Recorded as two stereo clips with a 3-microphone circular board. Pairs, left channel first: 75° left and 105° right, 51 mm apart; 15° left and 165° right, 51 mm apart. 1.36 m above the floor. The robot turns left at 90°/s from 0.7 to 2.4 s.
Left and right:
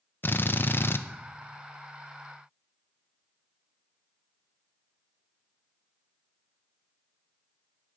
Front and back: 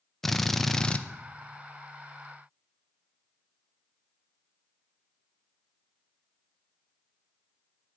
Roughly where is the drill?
Left.